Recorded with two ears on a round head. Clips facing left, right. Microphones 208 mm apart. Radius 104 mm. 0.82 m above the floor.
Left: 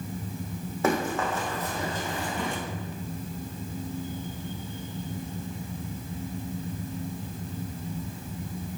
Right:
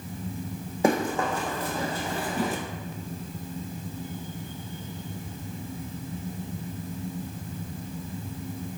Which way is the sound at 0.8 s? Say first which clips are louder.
Right 2 dB; 10° right (ahead or behind).